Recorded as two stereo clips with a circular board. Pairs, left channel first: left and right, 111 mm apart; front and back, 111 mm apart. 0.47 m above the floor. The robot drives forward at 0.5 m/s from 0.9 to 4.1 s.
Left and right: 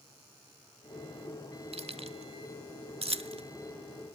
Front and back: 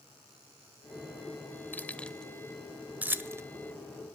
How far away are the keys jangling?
About 1.1 m.